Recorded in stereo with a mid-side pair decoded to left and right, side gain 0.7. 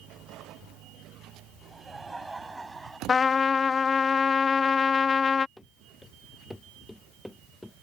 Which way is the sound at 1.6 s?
10° right.